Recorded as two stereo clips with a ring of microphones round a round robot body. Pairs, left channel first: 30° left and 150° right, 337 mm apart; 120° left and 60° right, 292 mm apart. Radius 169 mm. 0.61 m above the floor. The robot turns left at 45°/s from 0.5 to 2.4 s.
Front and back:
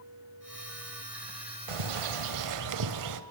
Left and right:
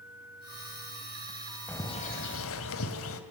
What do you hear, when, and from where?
1.7 s a bird: 155° right, 1.8 m; by 3.2 s 175° left, 1.8 m